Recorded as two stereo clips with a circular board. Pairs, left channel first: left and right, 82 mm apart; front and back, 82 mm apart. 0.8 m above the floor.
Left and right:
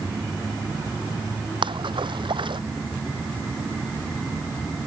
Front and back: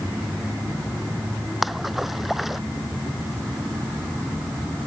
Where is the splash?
90° right.